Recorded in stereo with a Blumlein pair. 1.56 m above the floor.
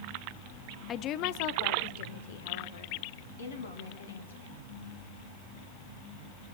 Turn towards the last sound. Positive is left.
turn(degrees=70)